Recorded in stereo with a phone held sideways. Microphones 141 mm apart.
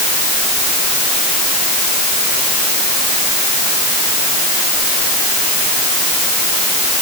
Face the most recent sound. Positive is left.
No sound to turn to.